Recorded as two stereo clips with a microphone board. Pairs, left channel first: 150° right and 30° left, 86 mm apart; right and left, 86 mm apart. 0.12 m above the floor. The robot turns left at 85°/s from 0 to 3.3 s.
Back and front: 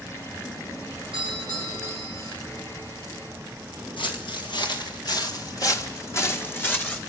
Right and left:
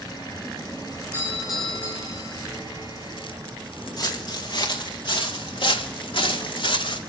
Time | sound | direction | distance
1.1 | a doorbell | 35° left | 6.5 m
4.0 | footsteps | 130° right | 3 m